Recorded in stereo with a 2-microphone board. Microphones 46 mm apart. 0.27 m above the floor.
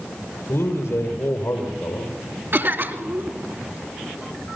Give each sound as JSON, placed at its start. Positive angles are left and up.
{"t": 0.5, "sound": "a man speaking", "side_deg": 70, "distance_m": 6.0}
{"t": 2.5, "sound": "a cough", "side_deg": -55, "distance_m": 2.5}